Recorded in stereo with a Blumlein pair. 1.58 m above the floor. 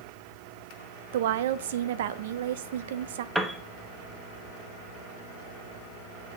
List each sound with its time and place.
1.1 s a woman speaking: 55° right, 0.7 m
3.4 s a piano: 5° right, 1.0 m